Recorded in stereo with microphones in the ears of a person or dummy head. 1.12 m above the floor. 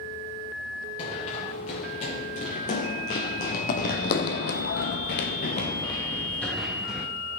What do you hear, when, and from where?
1.0 s running footsteps: 40° left (ahead or behind), 7 m; by 7.1 s 5° right (ahead or behind), 3 m